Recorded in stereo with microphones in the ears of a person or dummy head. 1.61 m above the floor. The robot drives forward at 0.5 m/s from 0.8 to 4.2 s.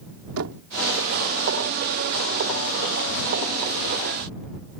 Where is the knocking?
85° right.